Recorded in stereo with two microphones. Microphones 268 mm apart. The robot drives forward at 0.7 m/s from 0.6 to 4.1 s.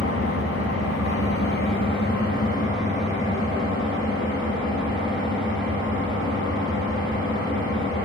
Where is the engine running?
60° left (ahead or behind), 0.8 m; by 8.1 s 15° left (ahead or behind), 2.5 m.